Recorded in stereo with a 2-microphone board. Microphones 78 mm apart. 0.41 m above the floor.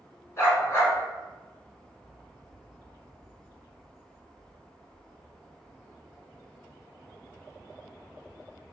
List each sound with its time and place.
0.4 s a dog barking: 35° left (ahead or behind), 1.0 m